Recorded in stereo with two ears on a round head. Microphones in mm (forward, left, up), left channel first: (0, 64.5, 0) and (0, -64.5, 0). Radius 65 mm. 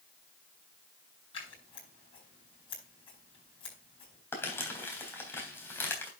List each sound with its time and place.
1.3 s scissors: 40° left (ahead or behind), 7 m
4.3 s crumpling: 15° left (ahead or behind), 3.5 m